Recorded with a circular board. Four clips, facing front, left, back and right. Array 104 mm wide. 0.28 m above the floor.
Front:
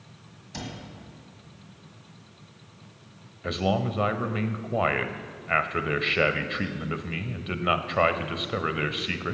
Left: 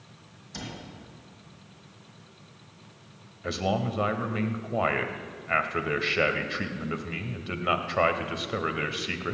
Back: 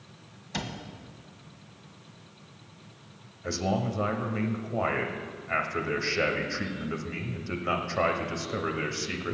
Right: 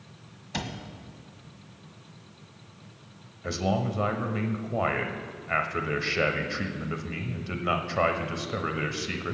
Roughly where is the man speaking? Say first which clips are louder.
Even, front 3 dB; ahead.